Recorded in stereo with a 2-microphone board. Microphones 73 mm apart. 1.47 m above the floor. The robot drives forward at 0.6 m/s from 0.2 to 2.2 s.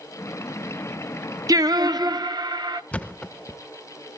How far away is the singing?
About 0.8 m.